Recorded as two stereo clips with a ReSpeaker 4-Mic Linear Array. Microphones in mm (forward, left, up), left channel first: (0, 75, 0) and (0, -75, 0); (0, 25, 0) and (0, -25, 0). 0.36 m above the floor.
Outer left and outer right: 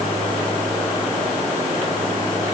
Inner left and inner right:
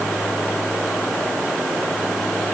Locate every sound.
Only background noise.